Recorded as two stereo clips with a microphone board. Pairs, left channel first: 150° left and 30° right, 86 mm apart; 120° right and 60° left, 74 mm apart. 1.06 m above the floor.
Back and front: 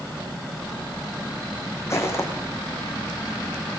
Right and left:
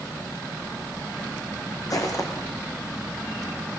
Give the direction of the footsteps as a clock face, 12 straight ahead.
5 o'clock.